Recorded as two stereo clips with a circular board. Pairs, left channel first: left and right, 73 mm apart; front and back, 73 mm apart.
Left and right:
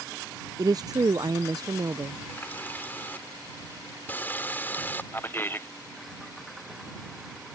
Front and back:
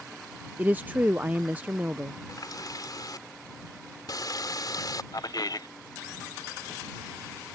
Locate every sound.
0.6 s a woman speaking: 115° right
2.3 s a running tap: 25° left
5.1 s a man speaking: 30° left